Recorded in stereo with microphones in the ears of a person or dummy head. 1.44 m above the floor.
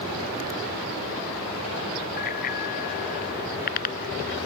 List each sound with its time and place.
2.2 s a bicycle bell: 50° left (ahead or behind); by 4.3 s 45° left (ahead or behind)